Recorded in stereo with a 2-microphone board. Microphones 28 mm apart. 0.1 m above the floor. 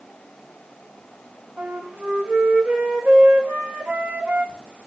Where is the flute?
50° right (ahead or behind), 1.3 m.